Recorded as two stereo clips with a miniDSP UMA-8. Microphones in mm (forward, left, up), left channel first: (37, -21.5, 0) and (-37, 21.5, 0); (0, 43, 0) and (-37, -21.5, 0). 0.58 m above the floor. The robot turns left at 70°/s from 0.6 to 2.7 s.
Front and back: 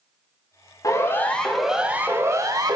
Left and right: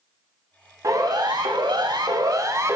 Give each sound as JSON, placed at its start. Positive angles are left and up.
{"t": 0.8, "sound": "a siren", "azimuth_deg": -75, "distance_m": 4.0}